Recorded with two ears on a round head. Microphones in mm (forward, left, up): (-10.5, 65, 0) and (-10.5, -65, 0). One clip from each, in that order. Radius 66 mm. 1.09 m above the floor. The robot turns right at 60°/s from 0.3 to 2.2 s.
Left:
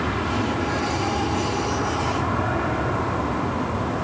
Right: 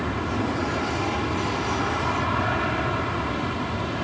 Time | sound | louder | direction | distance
0.0 | an aircraft | left 3 dB | 170° left | ?